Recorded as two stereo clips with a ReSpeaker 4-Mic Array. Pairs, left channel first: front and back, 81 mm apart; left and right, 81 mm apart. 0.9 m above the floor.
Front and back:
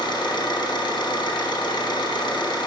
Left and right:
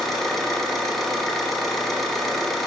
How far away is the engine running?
About 0.9 m.